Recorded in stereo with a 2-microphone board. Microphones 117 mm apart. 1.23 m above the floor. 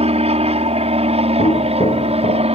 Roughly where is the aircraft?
Right.